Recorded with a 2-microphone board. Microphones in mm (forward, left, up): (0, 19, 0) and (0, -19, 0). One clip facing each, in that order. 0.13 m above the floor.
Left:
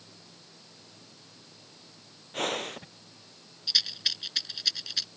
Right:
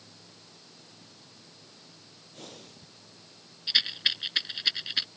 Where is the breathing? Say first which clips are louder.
Left 17 dB; 65° left (ahead or behind).